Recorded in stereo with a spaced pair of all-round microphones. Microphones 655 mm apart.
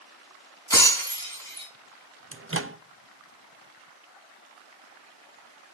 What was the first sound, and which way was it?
Breaking glass, 5° left (ahead or behind).